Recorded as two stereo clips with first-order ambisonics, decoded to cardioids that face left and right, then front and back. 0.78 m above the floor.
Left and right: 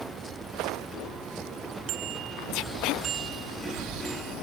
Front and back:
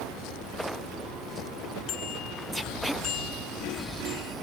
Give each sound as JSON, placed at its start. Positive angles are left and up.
{"t": 1.9, "sound": "a bicycle bell", "azimuth_deg": -55}